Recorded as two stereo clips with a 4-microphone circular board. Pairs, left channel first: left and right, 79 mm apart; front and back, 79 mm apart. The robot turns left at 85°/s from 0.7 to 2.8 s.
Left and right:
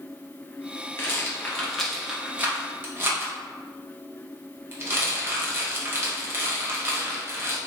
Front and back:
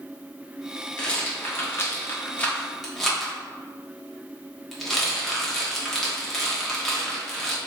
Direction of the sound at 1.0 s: 65° left.